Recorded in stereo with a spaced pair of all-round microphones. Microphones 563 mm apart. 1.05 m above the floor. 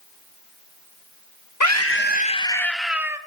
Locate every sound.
1.6 s a scream: 35° left (ahead or behind), 1.0 m; by 3.2 s 5° right (ahead or behind), 1.8 m